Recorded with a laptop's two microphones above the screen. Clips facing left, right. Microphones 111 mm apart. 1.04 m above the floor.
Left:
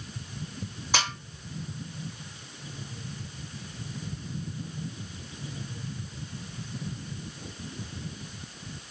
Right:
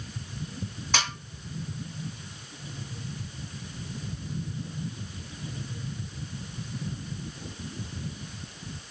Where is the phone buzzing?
No phone buzzing in this recording.